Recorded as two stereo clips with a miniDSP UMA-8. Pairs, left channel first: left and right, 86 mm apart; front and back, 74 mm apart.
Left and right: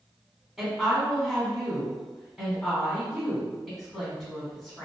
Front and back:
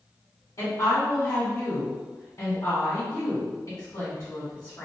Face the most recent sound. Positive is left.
turn(degrees=-5)